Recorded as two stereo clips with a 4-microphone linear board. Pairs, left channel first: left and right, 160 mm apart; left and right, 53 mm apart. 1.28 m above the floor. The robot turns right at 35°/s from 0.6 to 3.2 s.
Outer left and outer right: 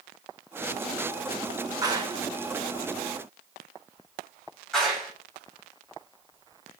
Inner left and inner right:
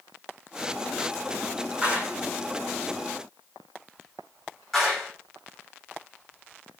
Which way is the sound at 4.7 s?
Centre (ahead or behind).